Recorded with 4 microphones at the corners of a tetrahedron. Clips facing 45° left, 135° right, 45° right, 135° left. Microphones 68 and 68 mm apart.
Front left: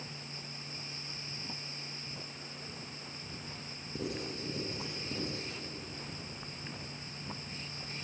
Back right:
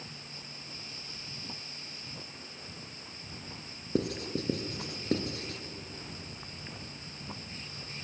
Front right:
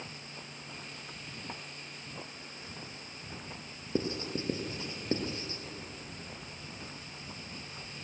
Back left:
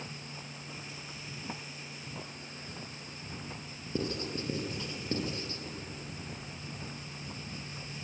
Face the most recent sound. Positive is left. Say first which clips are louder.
# back right 7 dB, front right 1 dB
turn(degrees=-110)